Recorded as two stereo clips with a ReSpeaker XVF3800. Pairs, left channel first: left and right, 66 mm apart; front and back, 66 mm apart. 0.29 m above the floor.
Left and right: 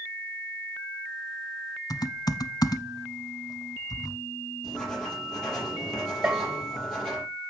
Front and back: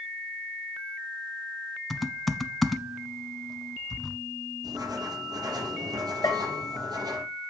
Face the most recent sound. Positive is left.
turn(degrees=-25)